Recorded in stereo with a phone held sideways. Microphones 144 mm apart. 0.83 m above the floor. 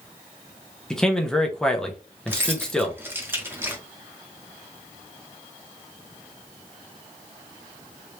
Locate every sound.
0.9 s a man speaking: 5° left (ahead or behind), 0.9 m
2.3 s keys jangling: 15° right (ahead or behind), 0.9 m